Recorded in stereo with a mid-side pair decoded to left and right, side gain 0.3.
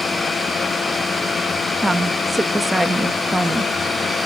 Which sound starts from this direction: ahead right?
A woman speaking, at 1.8 s.